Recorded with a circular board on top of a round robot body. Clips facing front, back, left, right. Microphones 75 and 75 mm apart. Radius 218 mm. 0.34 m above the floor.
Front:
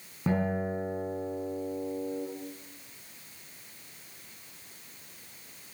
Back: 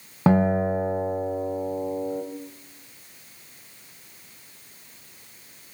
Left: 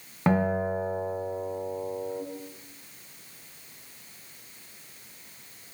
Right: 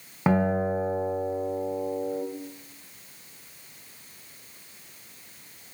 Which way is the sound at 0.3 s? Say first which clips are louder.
Back 9 dB, right 1 dB; 175° right.